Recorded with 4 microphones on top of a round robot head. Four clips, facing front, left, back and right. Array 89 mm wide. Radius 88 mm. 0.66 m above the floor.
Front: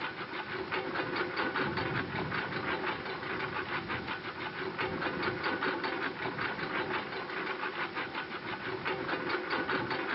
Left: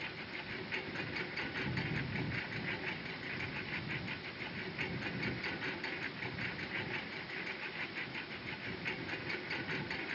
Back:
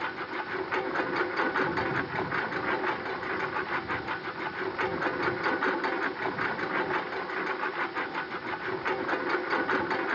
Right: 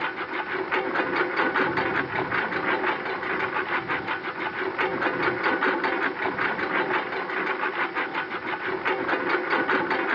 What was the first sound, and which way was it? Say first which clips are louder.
A lawn mower: right 16 dB, back 5 dB; 105° right.